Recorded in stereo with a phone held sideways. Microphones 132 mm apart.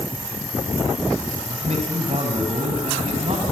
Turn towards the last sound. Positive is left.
turn(degrees=-55)  # may be behind; listen again after turning